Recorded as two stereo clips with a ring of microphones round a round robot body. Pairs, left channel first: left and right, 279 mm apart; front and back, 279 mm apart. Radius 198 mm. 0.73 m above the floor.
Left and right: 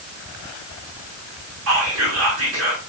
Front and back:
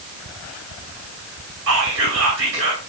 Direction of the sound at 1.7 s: 130° right.